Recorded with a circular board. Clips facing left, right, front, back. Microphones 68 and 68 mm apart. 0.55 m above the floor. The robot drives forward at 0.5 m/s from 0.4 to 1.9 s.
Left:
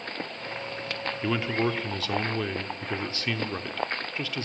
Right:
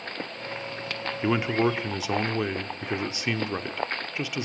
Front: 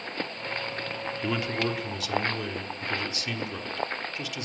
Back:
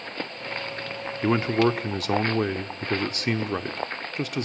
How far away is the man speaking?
About 0.9 m.